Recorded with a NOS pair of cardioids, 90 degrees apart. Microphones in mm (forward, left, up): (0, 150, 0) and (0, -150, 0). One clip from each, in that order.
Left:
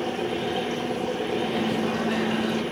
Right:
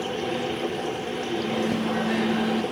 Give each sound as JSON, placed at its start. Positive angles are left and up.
{"t": 1.4, "sound": "a microwave", "azimuth_deg": -5, "distance_m": 1.7}